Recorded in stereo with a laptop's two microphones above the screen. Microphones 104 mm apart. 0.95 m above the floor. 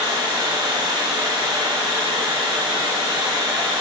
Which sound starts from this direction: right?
Running water, at 0.0 s.